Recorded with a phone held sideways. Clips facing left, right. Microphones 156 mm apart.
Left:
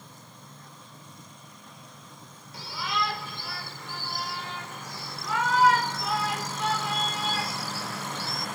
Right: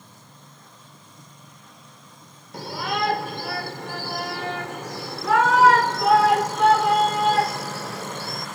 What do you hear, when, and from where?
2.5 s a shout: 60° right (ahead or behind); by 8.5 s 55° right (ahead or behind)